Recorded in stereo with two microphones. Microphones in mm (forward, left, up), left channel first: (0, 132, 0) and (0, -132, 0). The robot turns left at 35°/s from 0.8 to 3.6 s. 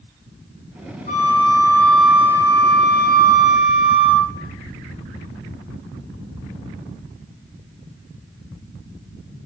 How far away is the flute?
About 0.7 m.